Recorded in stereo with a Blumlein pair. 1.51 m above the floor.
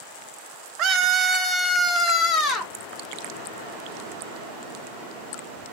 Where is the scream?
35° right, 0.8 m; by 2.7 s 25° left, 1.6 m.